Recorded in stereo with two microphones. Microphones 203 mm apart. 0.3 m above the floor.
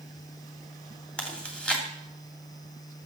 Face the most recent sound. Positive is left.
turn(degrees=5)  # may be behind; listen again after turning